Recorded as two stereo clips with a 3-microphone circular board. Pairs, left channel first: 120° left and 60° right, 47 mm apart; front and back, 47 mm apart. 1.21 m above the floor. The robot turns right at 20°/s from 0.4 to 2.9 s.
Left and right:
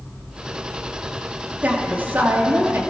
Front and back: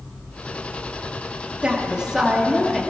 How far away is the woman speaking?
About 2.0 m.